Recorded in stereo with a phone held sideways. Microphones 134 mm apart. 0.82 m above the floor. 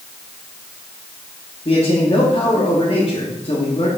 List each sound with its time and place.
1.6 s a man speaking: 45° left (ahead or behind), 1.6 m